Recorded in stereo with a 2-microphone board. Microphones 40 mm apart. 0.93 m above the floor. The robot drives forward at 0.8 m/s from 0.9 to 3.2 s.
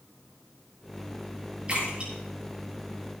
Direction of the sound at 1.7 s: 30° right (ahead or behind).